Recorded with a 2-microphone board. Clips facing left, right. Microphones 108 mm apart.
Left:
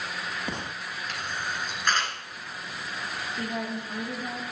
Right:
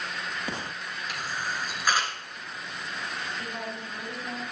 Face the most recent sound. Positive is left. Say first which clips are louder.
# left 4 dB
turn(degrees=70)  # may be behind; listen again after turning